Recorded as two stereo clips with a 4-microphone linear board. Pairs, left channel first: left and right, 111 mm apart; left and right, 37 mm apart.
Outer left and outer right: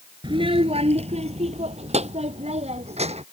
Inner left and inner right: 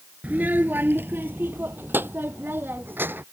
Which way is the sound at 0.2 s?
45° right (ahead or behind).